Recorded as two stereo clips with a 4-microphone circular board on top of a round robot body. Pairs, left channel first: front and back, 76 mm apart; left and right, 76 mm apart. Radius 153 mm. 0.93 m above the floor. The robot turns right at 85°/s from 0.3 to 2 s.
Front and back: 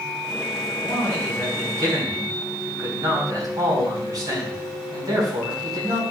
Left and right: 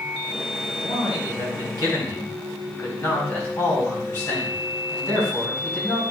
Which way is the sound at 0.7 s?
35° left.